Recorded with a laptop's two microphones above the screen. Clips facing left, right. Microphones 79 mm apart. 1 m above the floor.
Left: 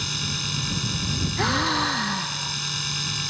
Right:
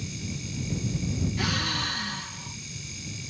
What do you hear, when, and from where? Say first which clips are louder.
0.0 s a machine running: left 4 dB; 80° left
1.4 s a gasp: left 7 dB; 40° left (ahead or behind)